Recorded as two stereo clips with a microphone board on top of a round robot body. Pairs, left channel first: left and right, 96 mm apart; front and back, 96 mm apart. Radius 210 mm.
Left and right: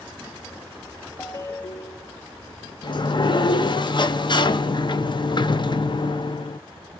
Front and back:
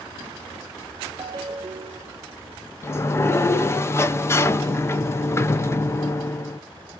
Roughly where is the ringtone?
Behind left.